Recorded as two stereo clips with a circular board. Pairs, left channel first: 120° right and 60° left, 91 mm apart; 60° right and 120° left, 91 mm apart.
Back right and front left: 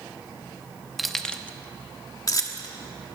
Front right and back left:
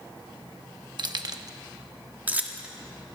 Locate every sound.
1.0 s keys jangling: 150° left, 1.1 m; by 2.7 s 165° right, 1.6 m